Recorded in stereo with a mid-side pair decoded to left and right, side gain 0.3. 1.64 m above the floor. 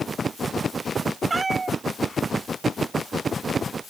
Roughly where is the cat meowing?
Ahead right.